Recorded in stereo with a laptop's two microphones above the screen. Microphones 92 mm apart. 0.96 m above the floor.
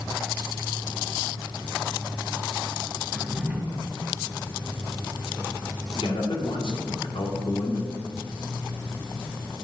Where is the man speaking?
75° left (ahead or behind), 1.9 m.